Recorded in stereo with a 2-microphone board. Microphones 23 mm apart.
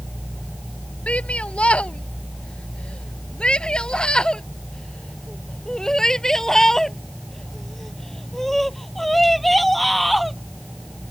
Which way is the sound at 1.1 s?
60° left (ahead or behind).